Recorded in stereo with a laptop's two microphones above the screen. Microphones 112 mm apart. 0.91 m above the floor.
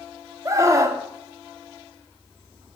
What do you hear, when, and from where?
0.5 s a scream: 25° right (ahead or behind), 1.9 m